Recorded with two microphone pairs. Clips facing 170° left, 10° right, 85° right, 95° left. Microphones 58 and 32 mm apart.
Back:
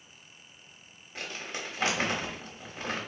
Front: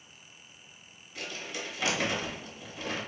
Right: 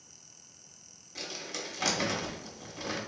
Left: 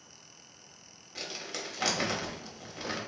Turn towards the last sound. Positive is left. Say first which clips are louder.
# back 1 dB, even
turn(degrees=160)